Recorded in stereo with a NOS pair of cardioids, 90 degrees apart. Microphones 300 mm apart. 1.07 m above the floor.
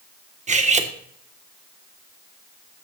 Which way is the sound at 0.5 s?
25° right.